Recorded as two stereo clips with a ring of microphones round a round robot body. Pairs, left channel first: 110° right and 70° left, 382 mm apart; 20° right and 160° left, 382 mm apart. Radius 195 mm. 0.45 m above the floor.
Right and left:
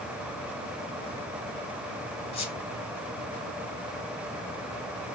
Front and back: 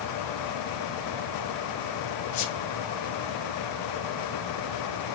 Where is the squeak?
35° right, 1.4 m.